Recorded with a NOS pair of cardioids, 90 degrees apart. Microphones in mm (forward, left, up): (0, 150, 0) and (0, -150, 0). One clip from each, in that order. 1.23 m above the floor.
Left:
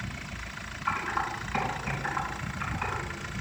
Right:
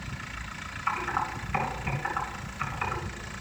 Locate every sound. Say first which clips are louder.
0.9 s typing on a keyboard: even; 55° right, 3 m